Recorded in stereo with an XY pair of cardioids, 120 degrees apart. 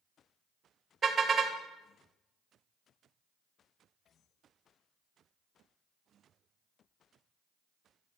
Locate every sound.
1.0 s a car horn: 25° right, 2.5 m